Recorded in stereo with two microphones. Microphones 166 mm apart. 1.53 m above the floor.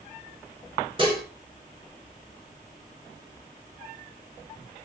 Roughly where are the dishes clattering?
Right.